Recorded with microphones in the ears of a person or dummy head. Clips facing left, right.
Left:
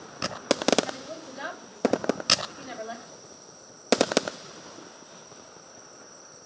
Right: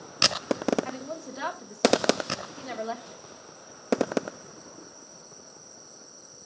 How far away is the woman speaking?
About 1.6 m.